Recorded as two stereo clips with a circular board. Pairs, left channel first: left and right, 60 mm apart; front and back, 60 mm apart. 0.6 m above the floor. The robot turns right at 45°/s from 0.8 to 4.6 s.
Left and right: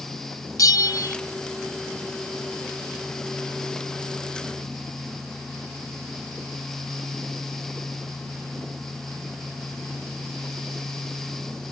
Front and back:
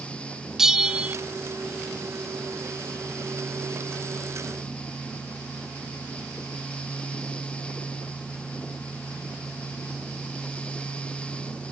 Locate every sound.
0.6 s a bell: 100° left, 0.8 m; by 1.1 s 115° left, 0.8 m